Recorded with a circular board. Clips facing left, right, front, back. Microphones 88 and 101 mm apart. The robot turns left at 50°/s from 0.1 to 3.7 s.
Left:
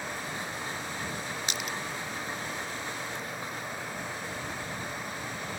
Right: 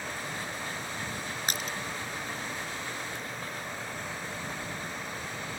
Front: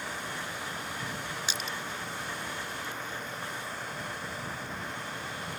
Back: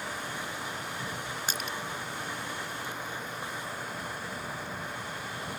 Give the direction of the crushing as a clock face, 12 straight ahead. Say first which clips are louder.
Right 2 dB, back 2 dB; 5 o'clock.